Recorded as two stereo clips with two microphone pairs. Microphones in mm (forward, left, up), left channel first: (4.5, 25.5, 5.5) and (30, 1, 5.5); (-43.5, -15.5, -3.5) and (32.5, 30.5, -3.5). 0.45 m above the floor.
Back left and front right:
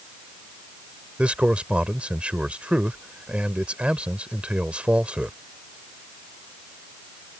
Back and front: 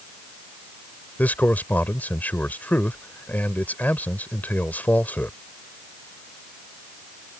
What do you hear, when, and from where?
1.2 s a man speaking: 85° right